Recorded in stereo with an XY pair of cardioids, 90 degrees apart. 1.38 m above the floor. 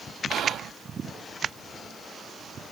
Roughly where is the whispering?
Right.